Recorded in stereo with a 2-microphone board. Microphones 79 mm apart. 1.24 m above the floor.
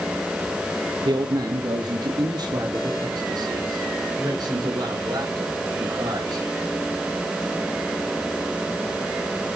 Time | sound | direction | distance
1.1 | a man speaking | 75° right (ahead or behind) | 1.7 m